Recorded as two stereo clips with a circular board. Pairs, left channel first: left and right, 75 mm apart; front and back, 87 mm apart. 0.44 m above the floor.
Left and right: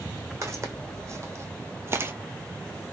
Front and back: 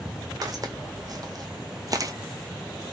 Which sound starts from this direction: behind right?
Footsteps, at 0.4 s.